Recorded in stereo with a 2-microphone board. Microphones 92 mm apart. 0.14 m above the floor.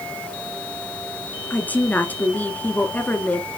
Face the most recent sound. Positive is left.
turn(degrees=20)  # may be behind; listen again after turning